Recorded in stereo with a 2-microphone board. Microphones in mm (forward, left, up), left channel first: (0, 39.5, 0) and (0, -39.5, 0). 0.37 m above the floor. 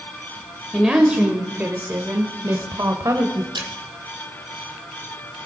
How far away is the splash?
About 3 m.